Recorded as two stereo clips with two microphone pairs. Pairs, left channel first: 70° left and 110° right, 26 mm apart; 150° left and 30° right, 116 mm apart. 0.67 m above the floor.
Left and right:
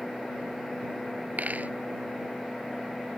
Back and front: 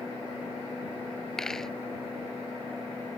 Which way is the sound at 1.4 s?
125° right.